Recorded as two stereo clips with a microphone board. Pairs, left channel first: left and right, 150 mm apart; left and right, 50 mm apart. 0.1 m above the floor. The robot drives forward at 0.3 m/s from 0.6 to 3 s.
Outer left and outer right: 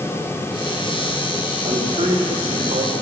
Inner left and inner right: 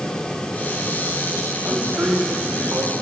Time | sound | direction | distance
1.6 | a man speaking | 35° right (ahead or behind) | 6.5 m